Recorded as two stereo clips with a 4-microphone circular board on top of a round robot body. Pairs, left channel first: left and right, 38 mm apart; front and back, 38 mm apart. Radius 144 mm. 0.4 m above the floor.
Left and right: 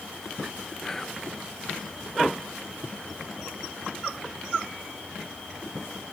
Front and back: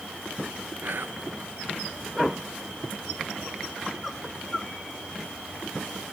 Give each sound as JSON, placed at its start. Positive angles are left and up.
{"t": 0.8, "sound": "whispering", "azimuth_deg": 170, "distance_m": 1.9}